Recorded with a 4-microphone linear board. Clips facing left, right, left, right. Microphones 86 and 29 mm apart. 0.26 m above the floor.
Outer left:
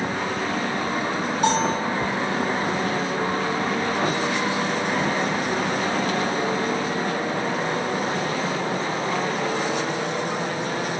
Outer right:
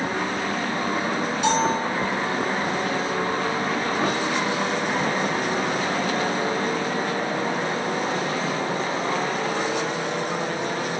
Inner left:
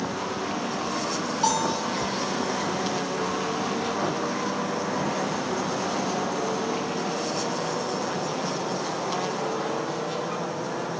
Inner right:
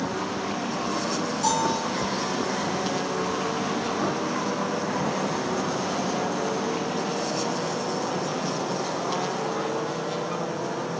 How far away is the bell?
About 3.5 m.